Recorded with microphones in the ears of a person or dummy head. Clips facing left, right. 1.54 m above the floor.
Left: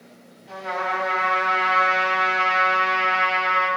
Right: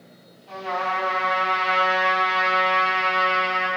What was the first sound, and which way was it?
A trumpet, 5° left (ahead or behind).